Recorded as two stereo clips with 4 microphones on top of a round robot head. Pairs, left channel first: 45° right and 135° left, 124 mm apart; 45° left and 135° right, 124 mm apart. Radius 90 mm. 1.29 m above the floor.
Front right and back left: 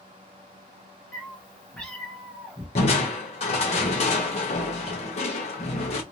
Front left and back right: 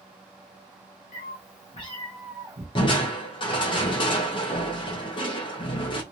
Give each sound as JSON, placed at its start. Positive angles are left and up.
{"t": 1.1, "sound": "a cat meowing", "azimuth_deg": 30, "distance_m": 1.0}
{"t": 2.8, "sound": "crushing", "azimuth_deg": -5, "distance_m": 0.8}